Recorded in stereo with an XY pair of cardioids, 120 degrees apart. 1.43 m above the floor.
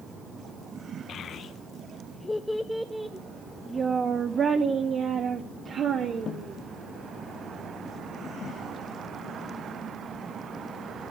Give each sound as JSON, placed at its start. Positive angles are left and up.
{"t": 1.1, "sound": "a child speaking", "azimuth_deg": 60, "distance_m": 0.9}